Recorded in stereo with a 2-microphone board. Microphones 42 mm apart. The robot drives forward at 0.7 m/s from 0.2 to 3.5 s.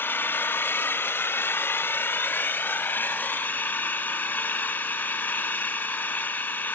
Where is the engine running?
55° left (ahead or behind), 1.8 m; by 6.8 s 40° left (ahead or behind), 2.5 m.